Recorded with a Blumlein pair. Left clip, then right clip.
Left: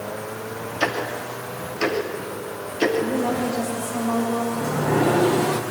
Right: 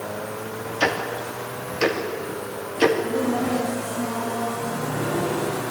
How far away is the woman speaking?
About 5 m.